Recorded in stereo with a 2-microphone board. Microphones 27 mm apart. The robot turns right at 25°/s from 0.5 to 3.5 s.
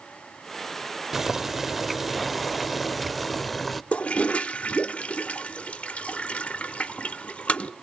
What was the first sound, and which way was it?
Boiling, 15° right (ahead or behind).